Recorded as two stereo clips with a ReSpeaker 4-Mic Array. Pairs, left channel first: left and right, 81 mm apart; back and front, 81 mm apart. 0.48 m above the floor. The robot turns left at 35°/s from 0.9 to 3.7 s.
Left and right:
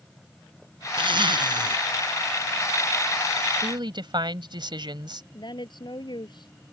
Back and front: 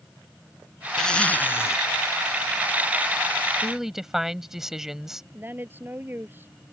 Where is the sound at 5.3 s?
65° left.